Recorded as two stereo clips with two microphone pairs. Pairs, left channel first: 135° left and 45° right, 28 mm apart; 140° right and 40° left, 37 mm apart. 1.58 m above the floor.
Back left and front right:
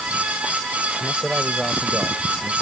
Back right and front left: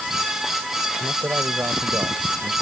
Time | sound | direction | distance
1.0 | a man speaking | 40° left | ?